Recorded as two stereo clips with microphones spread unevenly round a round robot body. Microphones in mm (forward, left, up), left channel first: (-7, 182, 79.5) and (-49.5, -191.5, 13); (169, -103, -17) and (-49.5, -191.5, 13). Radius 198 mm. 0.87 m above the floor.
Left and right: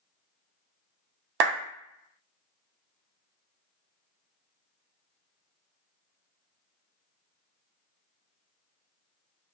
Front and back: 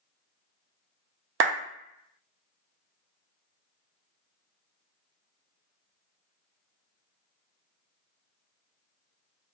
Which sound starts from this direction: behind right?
A clap, at 1.4 s.